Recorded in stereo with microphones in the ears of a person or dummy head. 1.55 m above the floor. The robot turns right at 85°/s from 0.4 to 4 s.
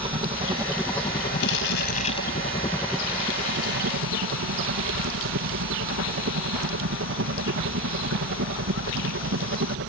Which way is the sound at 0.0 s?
35° right.